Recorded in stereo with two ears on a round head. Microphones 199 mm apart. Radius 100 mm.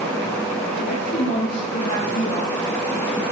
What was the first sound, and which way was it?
A woman speaking, 35° left (ahead or behind).